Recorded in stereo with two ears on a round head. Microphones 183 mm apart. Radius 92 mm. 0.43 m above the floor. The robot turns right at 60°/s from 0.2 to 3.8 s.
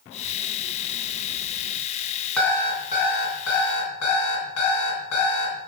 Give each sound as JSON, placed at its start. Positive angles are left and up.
{"t": 2.4, "sound": "an alarm clock", "azimuth_deg": 5, "distance_m": 2.5}